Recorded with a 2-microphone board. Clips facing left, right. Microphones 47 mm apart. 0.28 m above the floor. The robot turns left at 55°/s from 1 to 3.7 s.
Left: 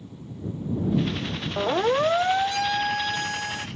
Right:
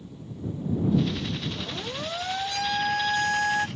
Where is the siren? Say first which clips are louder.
Left 12 dB; 70° left (ahead or behind); by 3.7 s 45° right (ahead or behind).